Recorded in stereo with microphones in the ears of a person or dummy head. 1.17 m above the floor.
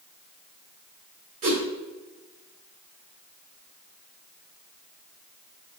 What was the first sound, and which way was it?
A whoosh, 40° right (ahead or behind).